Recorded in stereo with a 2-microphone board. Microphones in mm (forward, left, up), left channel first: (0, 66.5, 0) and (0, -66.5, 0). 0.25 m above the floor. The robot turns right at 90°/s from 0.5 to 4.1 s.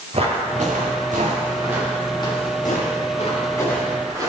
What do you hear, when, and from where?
0.1 s footsteps: 45° right (ahead or behind), 4.5 m; by 4.3 s 25° right (ahead or behind), 7 m